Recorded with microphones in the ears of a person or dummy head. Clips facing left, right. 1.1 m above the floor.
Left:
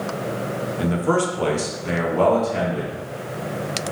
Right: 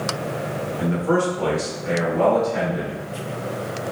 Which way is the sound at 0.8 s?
55° left (ahead or behind).